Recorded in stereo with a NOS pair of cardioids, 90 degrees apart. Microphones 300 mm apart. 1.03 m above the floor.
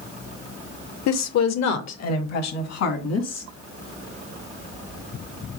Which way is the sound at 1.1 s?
70° left.